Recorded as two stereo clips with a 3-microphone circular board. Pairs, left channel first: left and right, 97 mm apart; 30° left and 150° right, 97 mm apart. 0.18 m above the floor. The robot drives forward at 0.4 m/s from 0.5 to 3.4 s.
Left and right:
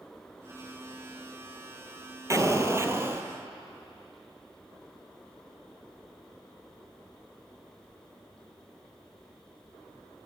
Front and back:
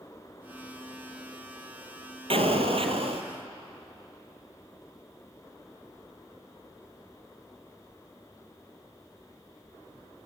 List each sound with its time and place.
2.3 s an explosion: 145° right, 1.4 m; by 3.3 s 155° right, 1.7 m